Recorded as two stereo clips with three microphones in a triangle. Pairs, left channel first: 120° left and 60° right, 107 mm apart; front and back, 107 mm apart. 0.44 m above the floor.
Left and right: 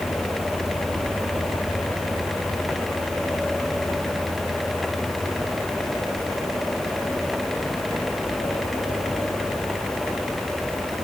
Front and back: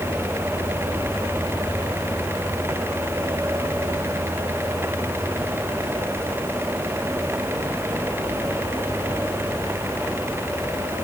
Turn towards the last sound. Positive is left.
No sound to turn to.